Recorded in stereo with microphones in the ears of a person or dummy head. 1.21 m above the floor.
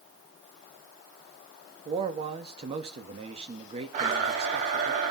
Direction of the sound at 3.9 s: 40° right (ahead or behind).